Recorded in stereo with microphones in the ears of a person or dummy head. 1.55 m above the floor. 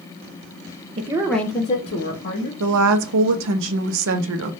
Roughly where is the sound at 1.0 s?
Right.